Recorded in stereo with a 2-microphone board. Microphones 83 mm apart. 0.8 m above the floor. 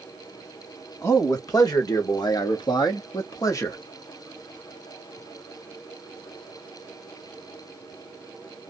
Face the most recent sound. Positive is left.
turn(degrees=35)  # may be behind; listen again after turning